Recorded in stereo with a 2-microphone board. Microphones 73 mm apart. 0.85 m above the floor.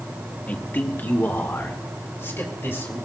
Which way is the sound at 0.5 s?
20° left (ahead or behind).